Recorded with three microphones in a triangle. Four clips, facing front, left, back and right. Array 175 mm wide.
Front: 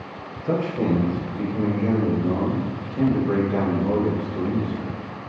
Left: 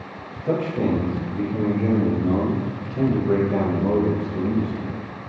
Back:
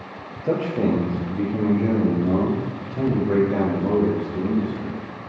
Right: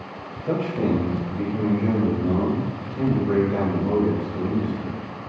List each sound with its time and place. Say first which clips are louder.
0.4 s a man speaking: left 1 dB, back 1 dB; 160° left, 4 m; by 5.0 s 120° left, 5 m